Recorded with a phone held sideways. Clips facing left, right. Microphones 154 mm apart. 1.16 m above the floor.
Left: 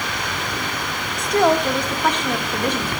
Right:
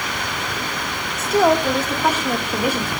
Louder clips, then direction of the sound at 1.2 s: Right 1 dB; 5° right (ahead or behind).